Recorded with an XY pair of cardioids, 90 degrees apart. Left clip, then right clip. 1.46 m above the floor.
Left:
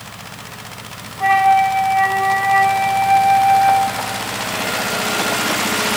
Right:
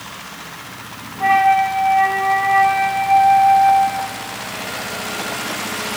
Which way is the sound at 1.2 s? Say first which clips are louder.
Left 1 dB; 15° left.